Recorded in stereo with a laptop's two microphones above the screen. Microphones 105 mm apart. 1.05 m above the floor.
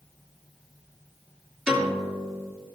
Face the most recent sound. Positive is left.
turn(degrees=-10)  # may be behind; listen again after turning